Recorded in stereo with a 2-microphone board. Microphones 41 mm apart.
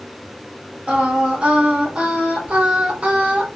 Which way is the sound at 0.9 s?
25° right (ahead or behind).